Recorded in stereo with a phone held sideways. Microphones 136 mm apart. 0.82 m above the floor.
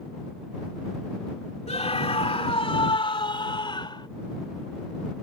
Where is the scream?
50° left (ahead or behind); by 4.1 s 35° left (ahead or behind).